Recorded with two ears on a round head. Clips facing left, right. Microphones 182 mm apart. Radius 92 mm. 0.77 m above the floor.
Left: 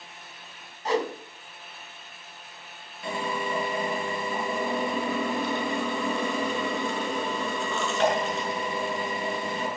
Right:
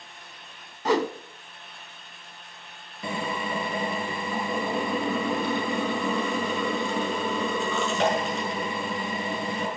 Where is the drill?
75° right (ahead or behind), 7 m.